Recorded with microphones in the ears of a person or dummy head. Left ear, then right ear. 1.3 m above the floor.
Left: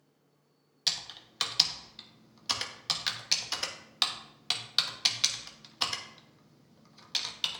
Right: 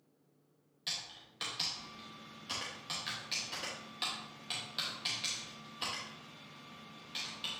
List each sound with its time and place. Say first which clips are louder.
0.9 s typing on a keyboard: left 8 dB; 40° left (ahead or behind), 1.0 m